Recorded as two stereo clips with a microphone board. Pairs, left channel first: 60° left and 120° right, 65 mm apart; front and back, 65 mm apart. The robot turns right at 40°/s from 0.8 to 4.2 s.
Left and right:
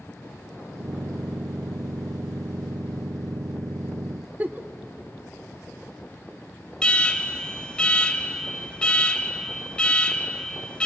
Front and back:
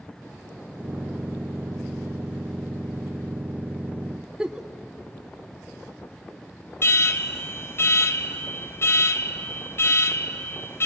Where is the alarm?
5° right, 1.0 m.